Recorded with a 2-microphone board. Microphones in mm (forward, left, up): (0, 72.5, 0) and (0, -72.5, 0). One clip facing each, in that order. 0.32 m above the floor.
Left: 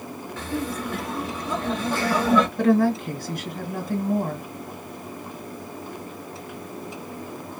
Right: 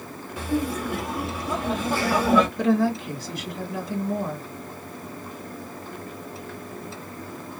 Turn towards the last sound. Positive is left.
turn(degrees=55)  # may be behind; listen again after turning